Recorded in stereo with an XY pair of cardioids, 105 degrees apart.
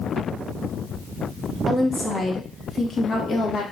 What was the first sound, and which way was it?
A woman speaking, 20° left.